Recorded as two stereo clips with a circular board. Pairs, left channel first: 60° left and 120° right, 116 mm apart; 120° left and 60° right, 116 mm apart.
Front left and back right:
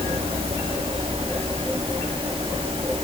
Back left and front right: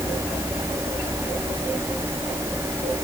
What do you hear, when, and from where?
Only background noise.